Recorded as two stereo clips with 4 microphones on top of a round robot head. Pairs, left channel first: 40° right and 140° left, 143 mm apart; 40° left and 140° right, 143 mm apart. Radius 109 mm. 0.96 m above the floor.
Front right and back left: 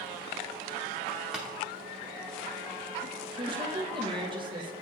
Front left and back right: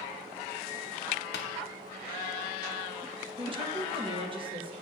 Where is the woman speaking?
175° right, 1.1 m.